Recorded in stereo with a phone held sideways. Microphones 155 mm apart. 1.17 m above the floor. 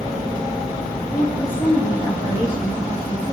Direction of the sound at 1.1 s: 25° left (ahead or behind).